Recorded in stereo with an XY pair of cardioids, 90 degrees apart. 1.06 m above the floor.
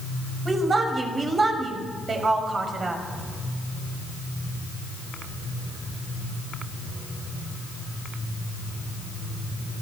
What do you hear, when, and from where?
0.5 s a woman speaking: 40° right, 5.5 m